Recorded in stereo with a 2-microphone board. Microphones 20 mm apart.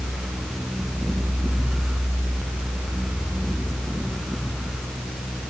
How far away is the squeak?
No squeak in this recording.